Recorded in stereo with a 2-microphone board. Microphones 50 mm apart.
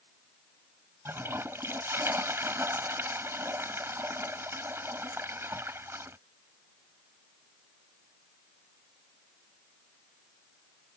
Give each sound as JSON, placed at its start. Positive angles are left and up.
{"t": 1.1, "sound": "a toilet flushing", "side_deg": -60}